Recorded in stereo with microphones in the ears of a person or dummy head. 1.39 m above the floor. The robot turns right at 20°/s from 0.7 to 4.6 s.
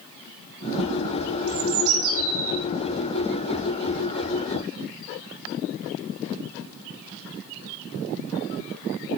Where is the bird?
85° right, 5.5 m; by 2.6 s 65° right (ahead or behind), 5.5 m.